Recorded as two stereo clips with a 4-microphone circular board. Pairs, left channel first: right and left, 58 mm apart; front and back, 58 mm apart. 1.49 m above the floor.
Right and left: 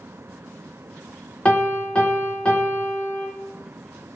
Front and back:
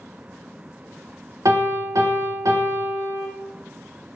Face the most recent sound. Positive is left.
turn(degrees=-160)